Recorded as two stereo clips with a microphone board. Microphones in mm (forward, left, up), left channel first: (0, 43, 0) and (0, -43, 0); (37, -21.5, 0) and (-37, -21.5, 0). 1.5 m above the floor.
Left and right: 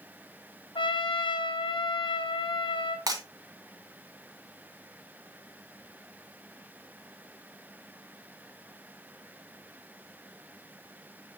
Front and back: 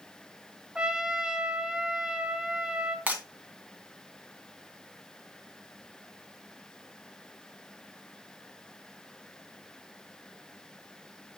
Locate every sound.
0.8 s a trumpet: 100° left, 0.8 m
3.1 s breaking glass: 115° right, 2 m